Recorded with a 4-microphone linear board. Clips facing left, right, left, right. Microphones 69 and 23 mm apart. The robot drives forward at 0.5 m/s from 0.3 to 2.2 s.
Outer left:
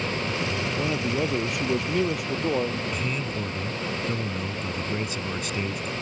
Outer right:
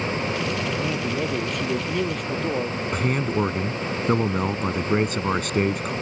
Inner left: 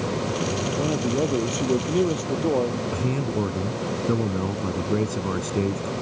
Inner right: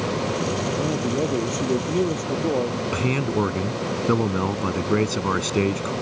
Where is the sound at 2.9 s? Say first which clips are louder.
Outer right 6 dB, inner right 3 dB; 60° right (ahead or behind).